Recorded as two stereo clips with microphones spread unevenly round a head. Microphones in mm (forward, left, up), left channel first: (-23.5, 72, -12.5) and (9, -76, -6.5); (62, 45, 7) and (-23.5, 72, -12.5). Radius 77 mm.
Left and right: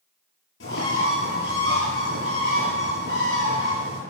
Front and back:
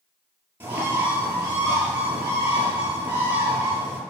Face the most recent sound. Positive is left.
turn(degrees=95)